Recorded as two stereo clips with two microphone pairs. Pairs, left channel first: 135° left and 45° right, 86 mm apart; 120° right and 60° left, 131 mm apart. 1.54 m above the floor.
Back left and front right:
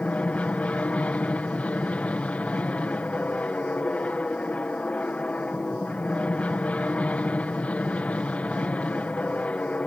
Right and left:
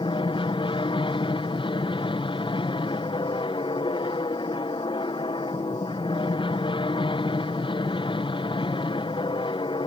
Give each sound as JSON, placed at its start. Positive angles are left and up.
{"t": 0.0, "sound": "an aircraft", "azimuth_deg": -155}